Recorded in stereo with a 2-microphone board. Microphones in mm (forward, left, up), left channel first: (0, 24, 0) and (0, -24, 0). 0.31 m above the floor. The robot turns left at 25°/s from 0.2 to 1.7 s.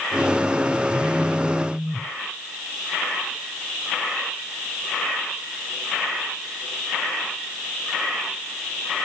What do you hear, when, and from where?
0.9 s a phone buzzing: 5° left (ahead or behind), 1.0 m; by 2.1 s 10° right (ahead or behind), 1.0 m